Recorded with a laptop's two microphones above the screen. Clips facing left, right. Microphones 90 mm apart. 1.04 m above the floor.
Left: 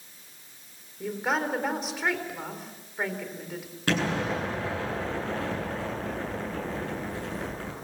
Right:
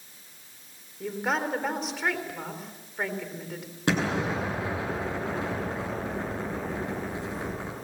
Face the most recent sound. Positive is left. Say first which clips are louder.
# right 1 dB
turn(degrees=-20)  # may be behind; listen again after turning